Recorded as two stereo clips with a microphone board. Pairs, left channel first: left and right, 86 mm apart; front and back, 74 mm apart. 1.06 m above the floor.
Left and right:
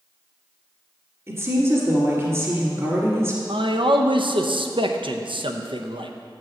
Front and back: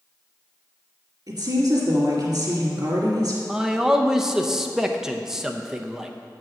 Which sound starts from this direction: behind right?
A woman speaking, at 1.3 s.